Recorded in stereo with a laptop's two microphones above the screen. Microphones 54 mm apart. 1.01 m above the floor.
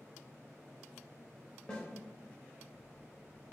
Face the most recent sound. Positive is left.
turn(degrees=20)  # may be behind; listen again after turning